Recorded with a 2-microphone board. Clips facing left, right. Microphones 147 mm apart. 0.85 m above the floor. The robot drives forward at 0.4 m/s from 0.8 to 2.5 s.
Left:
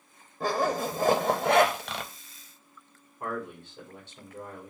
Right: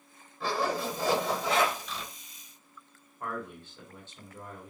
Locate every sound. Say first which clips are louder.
0.4 s a zipper: left 3 dB; 45° left (ahead or behind), 0.8 m; by 2.1 s 75° left (ahead or behind), 0.6 m
3.2 s a man speaking: left 3 dB; 15° left (ahead or behind), 1.8 m